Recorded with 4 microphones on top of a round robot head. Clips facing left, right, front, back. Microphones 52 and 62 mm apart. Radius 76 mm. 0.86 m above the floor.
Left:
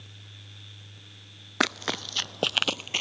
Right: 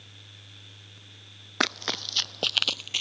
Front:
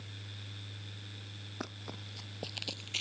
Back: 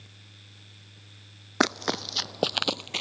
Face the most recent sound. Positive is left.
turn(degrees=140)